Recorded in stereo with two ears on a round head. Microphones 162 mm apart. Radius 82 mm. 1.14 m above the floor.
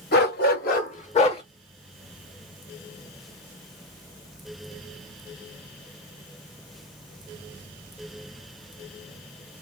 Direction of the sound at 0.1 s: 65° left (ahead or behind).